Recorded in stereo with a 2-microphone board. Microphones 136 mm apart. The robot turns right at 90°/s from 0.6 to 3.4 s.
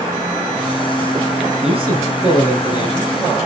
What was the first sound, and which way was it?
A man speaking, 65° right.